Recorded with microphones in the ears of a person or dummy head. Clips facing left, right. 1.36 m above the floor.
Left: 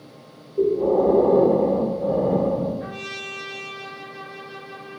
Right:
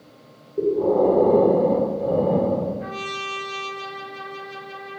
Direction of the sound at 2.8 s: Centre (ahead or behind).